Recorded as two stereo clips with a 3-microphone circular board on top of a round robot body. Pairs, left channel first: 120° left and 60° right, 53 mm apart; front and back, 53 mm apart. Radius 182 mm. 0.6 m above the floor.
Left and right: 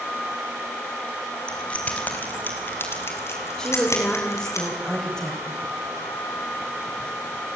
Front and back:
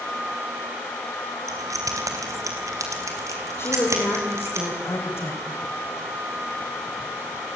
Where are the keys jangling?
170° right, 3.5 m; by 4.6 s 145° left, 5.5 m.